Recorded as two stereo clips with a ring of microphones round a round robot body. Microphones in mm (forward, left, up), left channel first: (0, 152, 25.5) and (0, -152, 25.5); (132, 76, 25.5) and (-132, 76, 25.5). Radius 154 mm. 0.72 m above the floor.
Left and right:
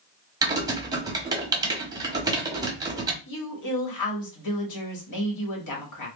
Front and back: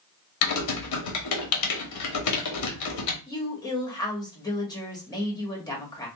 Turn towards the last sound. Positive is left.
turn(degrees=75)